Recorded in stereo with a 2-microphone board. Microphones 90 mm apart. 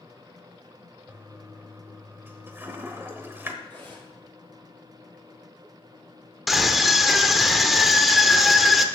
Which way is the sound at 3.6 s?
15° left (ahead or behind).